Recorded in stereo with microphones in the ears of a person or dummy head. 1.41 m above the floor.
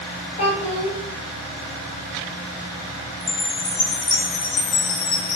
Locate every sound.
0.4 s a child speaking: 40° left (ahead or behind), 0.8 m
3.2 s a chime: 30° left (ahead or behind), 1.0 m